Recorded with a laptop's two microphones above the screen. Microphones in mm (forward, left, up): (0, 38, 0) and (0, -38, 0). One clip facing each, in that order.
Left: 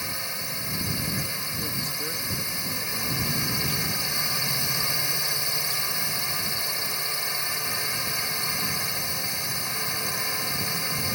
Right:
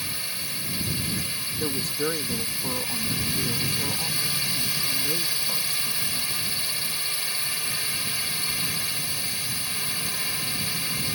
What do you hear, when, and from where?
0.0 s a drone: 25° left (ahead or behind)
1.6 s a woman speaking: 45° right (ahead or behind)